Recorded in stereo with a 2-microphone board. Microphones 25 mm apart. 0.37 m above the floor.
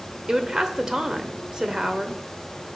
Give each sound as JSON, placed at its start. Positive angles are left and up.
{"t": 0.3, "sound": "a woman speaking", "side_deg": -25, "distance_m": 0.8}